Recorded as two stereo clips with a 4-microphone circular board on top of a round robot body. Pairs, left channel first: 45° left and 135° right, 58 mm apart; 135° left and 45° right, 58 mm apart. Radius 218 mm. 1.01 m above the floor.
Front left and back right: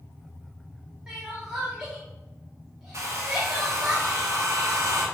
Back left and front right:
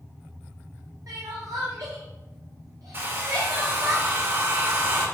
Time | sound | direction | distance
1.1 | crying | 60° right | 0.5 m
2.9 | a hair dryer | 95° right | 2 m